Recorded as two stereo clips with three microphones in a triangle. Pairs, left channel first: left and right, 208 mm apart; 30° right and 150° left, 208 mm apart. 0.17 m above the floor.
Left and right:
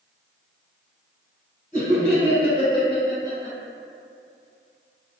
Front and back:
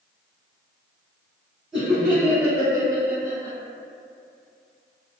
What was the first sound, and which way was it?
Laughter, 65° left.